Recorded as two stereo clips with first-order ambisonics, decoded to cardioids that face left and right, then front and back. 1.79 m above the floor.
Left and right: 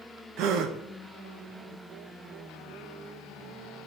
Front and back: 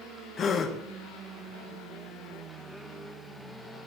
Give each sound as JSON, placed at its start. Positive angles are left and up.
{"t": 0.4, "sound": "a gasp", "azimuth_deg": -60, "distance_m": 1.0}